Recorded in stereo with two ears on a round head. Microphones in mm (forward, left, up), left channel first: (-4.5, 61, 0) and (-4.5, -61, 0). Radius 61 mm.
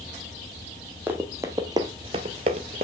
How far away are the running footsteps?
About 1.0 m.